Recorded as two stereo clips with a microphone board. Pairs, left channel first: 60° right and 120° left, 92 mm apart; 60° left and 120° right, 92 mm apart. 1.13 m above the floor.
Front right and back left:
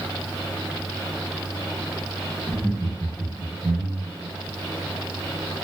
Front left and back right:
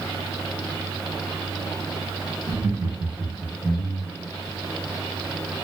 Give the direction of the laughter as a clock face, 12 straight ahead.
5 o'clock.